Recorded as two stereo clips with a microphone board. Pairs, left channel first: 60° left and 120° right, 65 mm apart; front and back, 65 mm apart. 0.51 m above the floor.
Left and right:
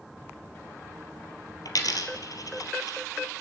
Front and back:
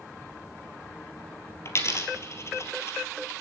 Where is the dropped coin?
40° left, 1.8 m.